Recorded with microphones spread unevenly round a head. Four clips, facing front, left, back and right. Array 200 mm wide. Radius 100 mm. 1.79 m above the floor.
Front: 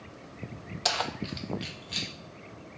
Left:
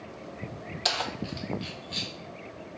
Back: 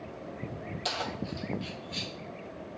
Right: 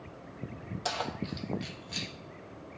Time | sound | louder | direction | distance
0.8 | keys jangling | left 2 dB, front 4 dB | 10° right | 0.6 m